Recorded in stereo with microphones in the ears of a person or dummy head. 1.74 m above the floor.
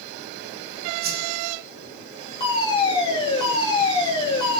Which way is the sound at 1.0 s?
55° right (ahead or behind).